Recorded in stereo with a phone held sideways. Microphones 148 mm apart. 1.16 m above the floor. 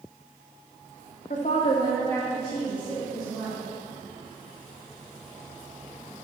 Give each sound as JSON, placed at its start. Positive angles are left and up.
{"t": 1.3, "sound": "a woman speaking", "side_deg": 65, "distance_m": 0.6}